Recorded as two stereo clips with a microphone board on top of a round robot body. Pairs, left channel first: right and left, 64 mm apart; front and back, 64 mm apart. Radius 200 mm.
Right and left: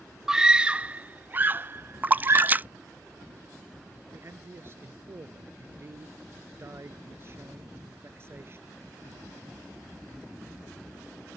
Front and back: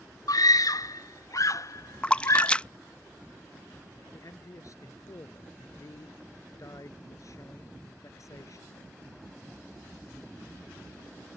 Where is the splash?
60° left.